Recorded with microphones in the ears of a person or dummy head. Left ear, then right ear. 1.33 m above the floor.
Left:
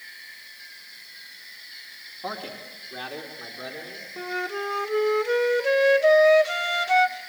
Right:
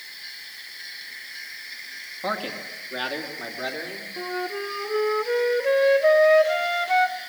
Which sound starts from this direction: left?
A flute, at 4.2 s.